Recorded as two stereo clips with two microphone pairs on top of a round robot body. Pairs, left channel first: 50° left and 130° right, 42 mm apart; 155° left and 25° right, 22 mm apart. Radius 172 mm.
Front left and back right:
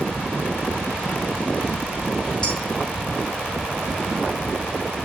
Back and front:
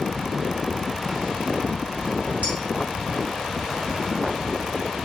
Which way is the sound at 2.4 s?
20° right.